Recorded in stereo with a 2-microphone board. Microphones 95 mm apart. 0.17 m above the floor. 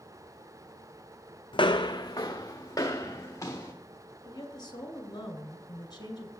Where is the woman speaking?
45° left (ahead or behind), 1.6 m.